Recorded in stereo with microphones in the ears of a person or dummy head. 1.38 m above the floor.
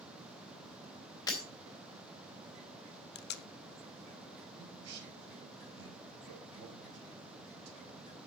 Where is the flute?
No flute in this recording.